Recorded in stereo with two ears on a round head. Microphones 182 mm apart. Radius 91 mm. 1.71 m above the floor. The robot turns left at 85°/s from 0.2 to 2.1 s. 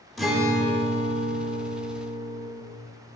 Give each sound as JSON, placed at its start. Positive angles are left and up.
{"t": 0.2, "sound": "a guitar", "azimuth_deg": 0, "distance_m": 1.5}